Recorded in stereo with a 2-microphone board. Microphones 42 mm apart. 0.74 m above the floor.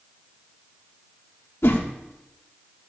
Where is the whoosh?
65° left (ahead or behind), 1.4 m.